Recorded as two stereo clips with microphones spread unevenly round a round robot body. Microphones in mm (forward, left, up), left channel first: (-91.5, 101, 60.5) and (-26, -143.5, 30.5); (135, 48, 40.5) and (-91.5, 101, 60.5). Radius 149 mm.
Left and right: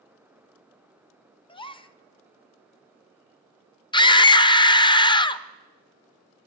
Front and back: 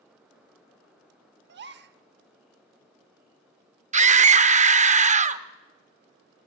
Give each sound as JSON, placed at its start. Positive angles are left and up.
{"t": 1.5, "sound": "a gasp", "azimuth_deg": 175, "distance_m": 1.1}
{"t": 3.9, "sound": "a scream", "azimuth_deg": 170, "distance_m": 1.0}